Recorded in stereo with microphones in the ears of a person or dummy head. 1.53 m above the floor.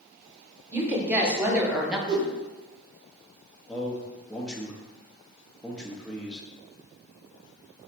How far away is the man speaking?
About 0.9 m.